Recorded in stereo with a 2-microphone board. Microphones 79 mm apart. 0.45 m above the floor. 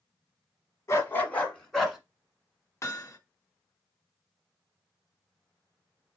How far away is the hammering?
About 0.7 m.